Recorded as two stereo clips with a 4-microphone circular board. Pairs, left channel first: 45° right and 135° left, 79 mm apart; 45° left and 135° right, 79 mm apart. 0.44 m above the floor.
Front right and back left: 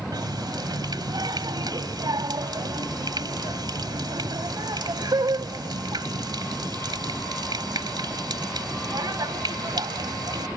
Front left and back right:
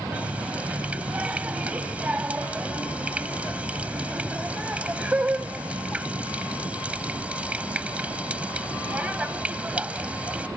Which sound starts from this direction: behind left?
A running tap, at 0.1 s.